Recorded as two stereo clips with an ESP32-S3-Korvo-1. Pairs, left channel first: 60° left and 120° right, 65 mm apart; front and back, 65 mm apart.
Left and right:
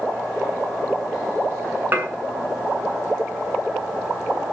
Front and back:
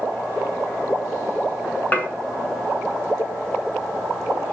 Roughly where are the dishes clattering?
Ahead right.